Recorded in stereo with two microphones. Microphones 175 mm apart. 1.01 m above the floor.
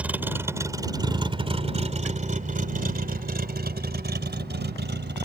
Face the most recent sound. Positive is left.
turn(degrees=-80)